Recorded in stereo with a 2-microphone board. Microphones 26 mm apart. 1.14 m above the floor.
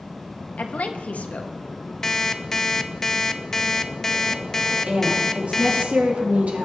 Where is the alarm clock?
15° left (ahead or behind), 0.6 m.